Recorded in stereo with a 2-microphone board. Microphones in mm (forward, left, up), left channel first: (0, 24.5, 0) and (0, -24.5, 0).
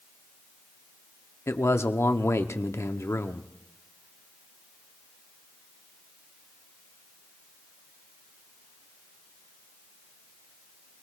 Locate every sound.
1.5 s a man speaking: 65° left (ahead or behind), 0.8 m